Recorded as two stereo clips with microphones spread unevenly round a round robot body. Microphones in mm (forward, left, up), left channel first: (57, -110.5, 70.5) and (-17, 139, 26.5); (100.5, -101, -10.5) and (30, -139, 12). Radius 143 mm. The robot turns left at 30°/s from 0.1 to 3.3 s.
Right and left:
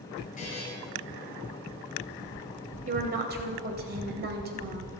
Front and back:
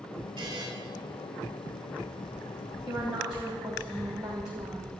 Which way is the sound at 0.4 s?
135° right.